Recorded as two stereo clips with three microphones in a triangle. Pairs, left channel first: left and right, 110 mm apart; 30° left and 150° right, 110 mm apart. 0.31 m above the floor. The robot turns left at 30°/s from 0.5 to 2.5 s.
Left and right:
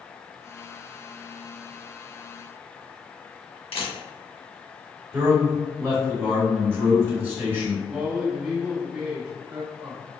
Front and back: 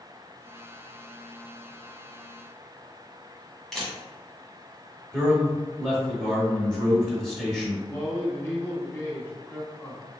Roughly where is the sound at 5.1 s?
Ahead right.